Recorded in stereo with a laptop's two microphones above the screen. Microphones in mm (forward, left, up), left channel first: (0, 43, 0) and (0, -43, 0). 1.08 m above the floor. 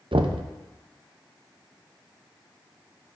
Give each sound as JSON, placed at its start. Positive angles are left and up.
{"t": 0.1, "sound": "knocking", "side_deg": -80, "distance_m": 0.5}